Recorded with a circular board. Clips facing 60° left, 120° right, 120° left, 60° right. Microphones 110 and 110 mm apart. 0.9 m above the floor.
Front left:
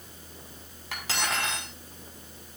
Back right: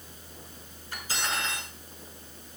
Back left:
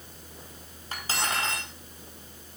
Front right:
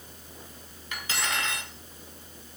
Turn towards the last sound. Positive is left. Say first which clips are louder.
# front left 2 dB, back left 1 dB
turn(degrees=65)